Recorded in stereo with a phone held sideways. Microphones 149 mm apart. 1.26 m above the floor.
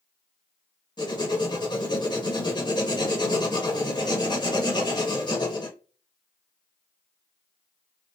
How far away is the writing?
About 1.1 m.